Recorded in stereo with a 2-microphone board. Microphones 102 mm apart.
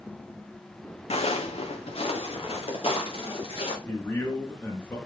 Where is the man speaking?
20° left (ahead or behind), 3 m.